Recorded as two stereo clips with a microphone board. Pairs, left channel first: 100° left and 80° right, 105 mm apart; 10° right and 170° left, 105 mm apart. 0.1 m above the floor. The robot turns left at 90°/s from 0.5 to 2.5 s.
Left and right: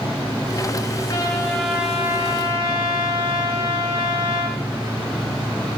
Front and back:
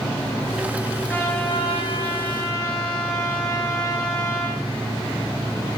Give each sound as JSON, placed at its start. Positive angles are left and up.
{"t": 1.1, "sound": "a trumpet", "azimuth_deg": 60, "distance_m": 6.0}